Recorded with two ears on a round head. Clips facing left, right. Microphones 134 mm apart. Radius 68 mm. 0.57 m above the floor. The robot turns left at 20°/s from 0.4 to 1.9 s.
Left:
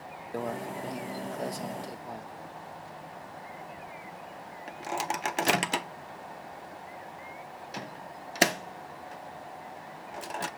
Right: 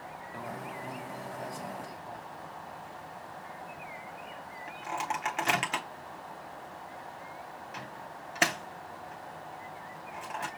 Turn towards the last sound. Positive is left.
turn(degrees=40)  # may be behind; listen again after turning